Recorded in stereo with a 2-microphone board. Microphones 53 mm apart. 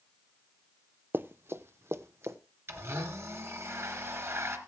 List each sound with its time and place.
1.1 s running footsteps: 45° right (ahead or behind), 0.5 m; by 2.4 s 60° right (ahead or behind), 1.3 m
2.7 s a blender: 55° right (ahead or behind), 2.5 m